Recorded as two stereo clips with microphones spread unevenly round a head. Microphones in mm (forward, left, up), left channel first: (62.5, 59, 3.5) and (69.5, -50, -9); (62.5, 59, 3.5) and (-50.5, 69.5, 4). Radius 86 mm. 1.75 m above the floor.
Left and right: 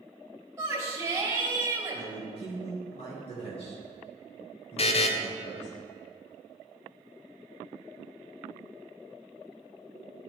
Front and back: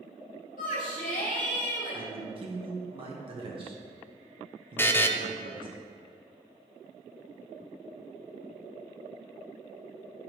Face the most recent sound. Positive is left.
turn(degrees=65)